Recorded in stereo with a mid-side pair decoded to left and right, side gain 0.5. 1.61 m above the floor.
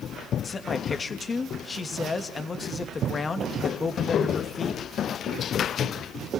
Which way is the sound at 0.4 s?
30° left.